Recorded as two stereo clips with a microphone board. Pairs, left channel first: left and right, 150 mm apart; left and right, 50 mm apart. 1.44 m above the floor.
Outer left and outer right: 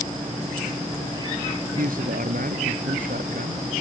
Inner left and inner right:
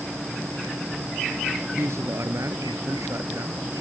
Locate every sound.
1.8 s a man speaking: 70° right (ahead or behind)